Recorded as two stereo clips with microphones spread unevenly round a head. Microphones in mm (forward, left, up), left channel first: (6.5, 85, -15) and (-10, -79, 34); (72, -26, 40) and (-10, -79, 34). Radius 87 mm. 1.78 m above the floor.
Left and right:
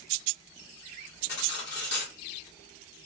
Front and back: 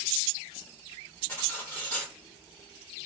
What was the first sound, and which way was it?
Cutlery clinking, 105° left.